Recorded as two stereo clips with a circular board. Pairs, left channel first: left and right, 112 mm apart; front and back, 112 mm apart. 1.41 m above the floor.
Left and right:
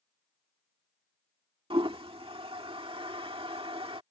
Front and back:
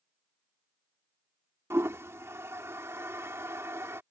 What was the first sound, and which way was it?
A toilet flushing, 115° right.